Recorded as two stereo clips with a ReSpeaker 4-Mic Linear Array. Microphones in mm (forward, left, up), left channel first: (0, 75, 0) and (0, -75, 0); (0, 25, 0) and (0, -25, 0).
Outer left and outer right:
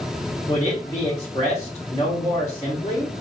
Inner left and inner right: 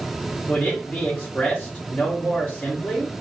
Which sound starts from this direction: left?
A man speaking, at 0.5 s.